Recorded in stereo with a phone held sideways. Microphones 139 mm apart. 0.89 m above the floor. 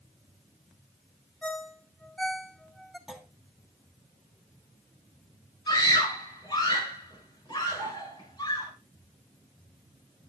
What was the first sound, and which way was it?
A ringtone, 5° left (ahead or behind).